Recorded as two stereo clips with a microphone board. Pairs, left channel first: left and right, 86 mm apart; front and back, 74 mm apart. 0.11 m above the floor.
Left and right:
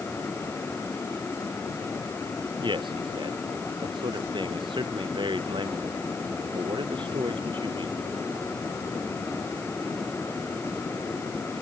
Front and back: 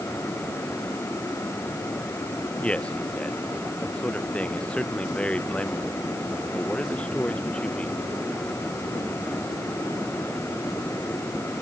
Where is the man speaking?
75° right.